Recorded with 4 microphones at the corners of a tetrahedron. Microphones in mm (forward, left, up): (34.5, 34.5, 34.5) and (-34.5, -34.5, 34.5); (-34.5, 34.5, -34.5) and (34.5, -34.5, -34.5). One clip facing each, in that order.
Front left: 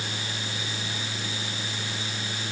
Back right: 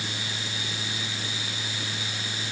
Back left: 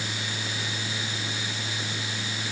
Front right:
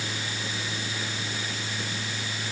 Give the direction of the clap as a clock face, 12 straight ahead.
No clap in this recording.